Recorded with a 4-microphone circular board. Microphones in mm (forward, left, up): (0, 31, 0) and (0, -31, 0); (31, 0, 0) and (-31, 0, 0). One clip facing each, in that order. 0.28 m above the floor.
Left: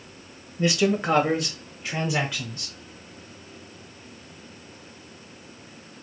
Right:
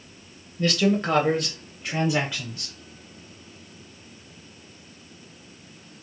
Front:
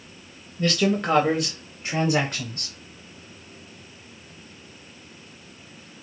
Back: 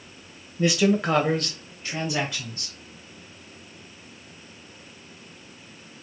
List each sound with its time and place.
0.6 s a man speaking: 140° left, 1.1 m; by 2.7 s 15° right, 1.5 m